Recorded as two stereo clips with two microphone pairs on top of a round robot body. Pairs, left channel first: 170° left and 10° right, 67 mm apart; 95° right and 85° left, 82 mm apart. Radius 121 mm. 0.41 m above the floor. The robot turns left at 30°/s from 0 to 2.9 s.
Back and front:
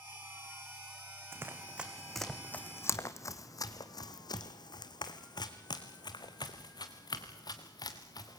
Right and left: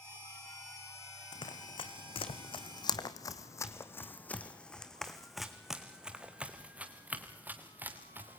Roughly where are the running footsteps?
Ahead right.